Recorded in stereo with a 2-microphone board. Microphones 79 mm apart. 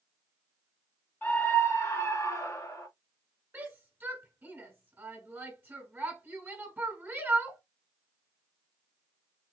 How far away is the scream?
About 1.8 m.